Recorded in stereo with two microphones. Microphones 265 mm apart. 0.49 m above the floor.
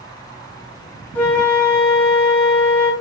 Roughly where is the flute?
Centre.